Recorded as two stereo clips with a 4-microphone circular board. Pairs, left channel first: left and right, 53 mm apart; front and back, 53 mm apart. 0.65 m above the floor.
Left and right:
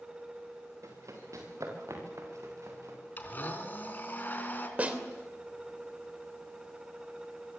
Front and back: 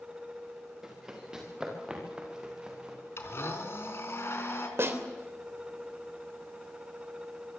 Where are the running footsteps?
100° right, 6.5 m; by 3.0 s 110° right, 8 m.